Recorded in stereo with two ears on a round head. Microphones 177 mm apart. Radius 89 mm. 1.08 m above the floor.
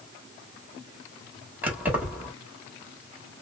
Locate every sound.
1.6 s keys jangling: 10° right (ahead or behind), 1.4 m